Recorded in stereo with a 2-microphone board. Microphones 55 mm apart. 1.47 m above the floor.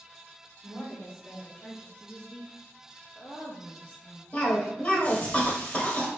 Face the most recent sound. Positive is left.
turn(degrees=25)  # may be behind; listen again after turning